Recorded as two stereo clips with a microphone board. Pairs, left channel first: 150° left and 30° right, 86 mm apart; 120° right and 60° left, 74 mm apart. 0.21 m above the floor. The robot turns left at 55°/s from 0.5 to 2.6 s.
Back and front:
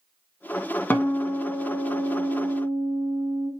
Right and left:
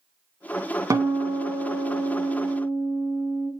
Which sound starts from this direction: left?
A guitar, at 0.9 s.